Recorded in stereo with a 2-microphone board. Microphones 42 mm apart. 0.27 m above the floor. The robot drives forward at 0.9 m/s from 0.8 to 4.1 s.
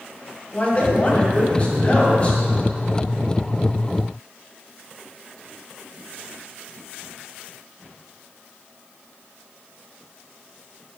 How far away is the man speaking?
About 1.9 m.